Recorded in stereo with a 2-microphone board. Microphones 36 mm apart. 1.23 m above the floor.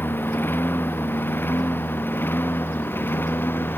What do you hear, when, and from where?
0.0 s a lawn mower: 80° left